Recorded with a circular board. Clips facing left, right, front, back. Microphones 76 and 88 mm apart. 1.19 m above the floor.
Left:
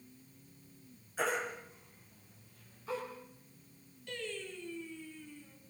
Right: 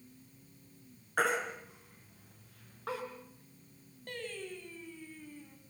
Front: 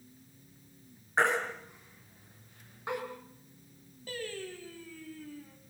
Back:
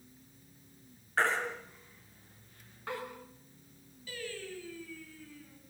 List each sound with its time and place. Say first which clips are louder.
1.2 s a baby crying: right 3 dB, front 2 dB; 70° right, 5.5 m
4.1 s singing: even, front 3 dB; 45° right, 5.5 m